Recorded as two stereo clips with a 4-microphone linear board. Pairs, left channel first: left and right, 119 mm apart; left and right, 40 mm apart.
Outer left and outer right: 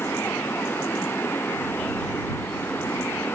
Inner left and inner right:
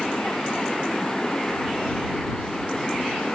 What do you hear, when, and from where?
0.0 s running water: 20° left (ahead or behind)